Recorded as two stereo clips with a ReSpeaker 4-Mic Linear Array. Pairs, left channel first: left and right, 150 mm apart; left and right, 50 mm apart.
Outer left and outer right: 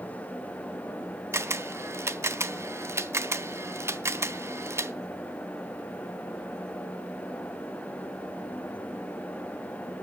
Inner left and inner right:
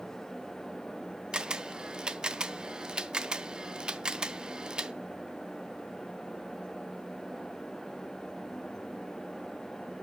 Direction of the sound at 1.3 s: 15° right (ahead or behind).